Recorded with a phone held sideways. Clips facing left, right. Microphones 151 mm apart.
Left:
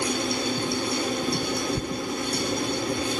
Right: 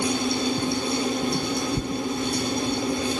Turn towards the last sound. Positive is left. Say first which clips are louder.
# right 2 dB
turn(degrees=-25)  # may be behind; listen again after turning